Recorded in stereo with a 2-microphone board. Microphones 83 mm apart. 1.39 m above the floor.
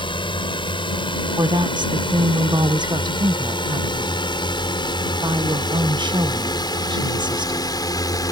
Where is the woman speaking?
65° right (ahead or behind).